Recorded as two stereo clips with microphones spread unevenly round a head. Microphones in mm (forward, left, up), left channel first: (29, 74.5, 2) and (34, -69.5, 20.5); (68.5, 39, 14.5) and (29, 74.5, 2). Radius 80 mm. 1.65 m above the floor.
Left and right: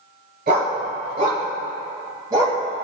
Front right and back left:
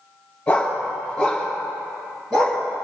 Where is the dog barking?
120° right, 3 m; by 2.6 s 160° right, 4 m.